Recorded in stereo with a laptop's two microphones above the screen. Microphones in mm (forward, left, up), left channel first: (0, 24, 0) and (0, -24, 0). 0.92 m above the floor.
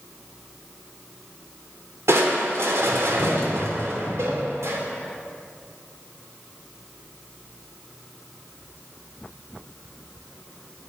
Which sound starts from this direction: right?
Crushing, at 2.1 s.